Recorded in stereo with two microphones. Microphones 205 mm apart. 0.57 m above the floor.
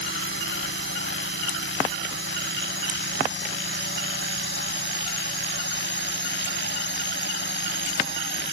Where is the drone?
75° left (ahead or behind); by 8.5 s 60° left (ahead or behind).